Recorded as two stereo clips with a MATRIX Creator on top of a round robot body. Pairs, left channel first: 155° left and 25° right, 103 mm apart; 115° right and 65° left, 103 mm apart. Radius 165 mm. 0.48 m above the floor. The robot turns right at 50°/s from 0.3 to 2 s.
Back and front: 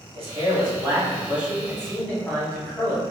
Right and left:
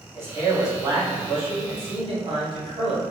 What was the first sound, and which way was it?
A man speaking, straight ahead.